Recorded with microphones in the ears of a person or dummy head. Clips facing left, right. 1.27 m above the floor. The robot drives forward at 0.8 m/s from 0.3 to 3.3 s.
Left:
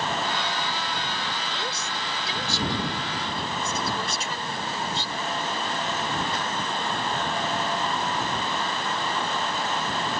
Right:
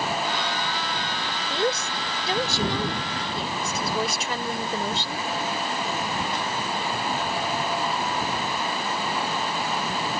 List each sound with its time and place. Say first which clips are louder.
1.5 s a woman speaking: right 7 dB; 50° right (ahead or behind); by 5.3 s 55° right (ahead or behind)